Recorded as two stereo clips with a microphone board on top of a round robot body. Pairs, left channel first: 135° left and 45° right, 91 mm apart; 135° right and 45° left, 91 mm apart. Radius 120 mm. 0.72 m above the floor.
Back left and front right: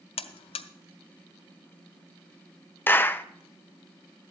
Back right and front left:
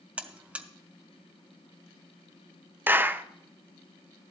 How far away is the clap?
About 0.8 m.